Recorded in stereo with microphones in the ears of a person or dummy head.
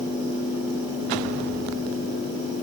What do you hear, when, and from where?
Only background noise.